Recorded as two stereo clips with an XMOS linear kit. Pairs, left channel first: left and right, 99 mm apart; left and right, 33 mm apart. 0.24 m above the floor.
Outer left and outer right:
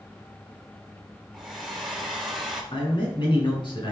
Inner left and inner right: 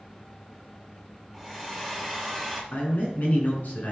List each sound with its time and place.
1.3 s a hair dryer: centre (ahead or behind), 3.5 m
2.7 s a man speaking: 60° left (ahead or behind), 3 m